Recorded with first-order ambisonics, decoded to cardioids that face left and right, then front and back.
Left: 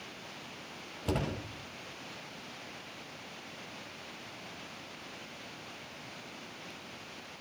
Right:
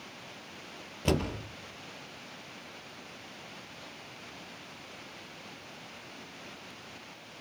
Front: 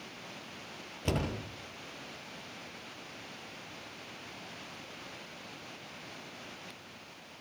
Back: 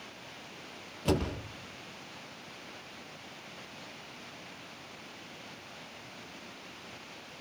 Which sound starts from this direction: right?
A door slam, at 1.1 s.